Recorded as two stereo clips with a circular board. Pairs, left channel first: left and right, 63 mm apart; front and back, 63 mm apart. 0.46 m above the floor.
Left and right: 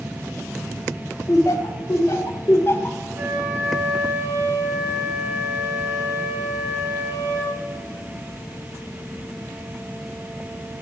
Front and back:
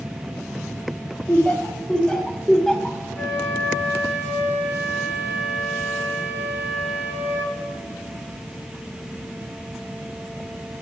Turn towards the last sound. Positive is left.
turn(degrees=-60)